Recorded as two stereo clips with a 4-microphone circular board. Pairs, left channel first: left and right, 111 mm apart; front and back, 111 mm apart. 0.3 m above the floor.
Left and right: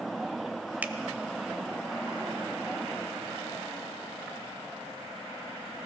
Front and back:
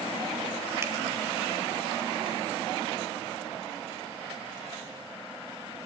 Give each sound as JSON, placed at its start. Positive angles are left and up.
{"t": 0.8, "sound": "a finger snap", "azimuth_deg": -150, "distance_m": 0.7}